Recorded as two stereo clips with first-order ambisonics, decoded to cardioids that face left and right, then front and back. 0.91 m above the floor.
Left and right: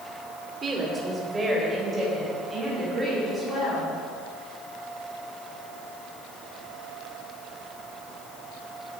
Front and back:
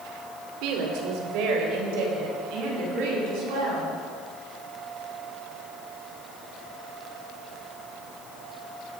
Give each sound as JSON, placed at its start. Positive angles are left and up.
{"t": 0.6, "sound": "a woman speaking", "azimuth_deg": -160, "distance_m": 2.5}